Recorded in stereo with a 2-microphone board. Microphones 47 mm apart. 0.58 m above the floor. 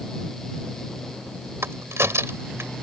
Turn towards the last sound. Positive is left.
turn(degrees=-75)  # may be behind; listen again after turning